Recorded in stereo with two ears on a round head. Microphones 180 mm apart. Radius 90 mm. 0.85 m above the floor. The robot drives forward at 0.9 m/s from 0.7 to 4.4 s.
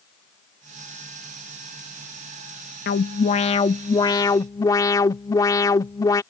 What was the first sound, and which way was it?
An alarm, 50° left (ahead or behind).